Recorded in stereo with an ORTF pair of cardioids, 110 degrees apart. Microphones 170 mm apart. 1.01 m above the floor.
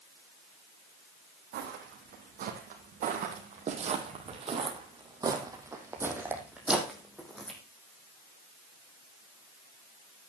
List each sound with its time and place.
1.5 s footsteps: 65° right, 3.5 m; by 7.6 s 5° left, 3 m